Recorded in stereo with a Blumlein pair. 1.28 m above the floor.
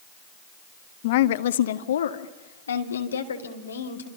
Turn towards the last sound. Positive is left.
turn(degrees=75)